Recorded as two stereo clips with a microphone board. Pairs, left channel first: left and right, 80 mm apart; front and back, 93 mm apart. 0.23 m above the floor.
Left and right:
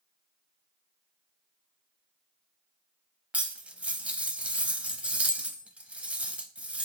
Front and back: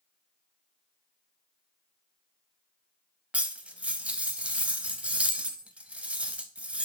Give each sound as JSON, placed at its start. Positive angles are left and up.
{"t": 3.3, "sound": "cutlery clinking", "azimuth_deg": -130, "distance_m": 0.5}